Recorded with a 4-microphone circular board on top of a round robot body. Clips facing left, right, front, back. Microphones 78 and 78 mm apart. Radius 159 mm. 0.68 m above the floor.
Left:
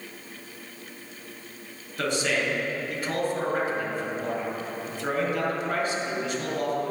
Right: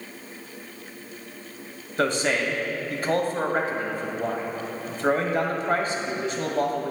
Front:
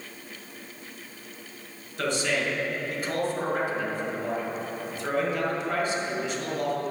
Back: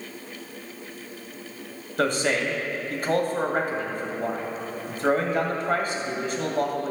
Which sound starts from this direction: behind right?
A man speaking, at 2.0 s.